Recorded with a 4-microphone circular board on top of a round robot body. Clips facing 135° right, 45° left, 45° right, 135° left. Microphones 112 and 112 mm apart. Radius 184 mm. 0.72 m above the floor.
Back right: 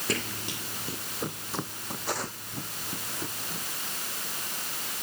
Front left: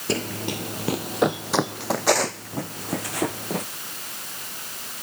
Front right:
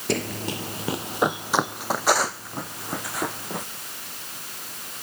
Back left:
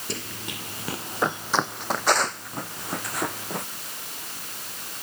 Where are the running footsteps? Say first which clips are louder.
Front left 8 dB, front right 10 dB; 15° right; by 3.6 s 45° left.